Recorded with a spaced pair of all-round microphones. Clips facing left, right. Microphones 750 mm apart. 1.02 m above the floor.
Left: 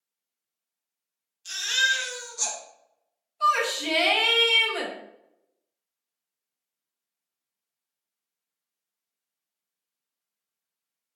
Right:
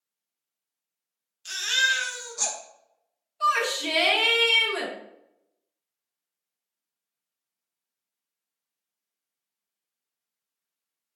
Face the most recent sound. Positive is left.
turn(degrees=-45)  # may be behind; listen again after turning